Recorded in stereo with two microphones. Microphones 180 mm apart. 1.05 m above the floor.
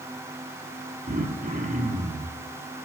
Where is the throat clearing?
45° right (ahead or behind), 8 m.